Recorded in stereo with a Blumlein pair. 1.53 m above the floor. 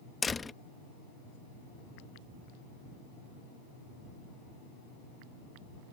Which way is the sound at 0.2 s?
10° left.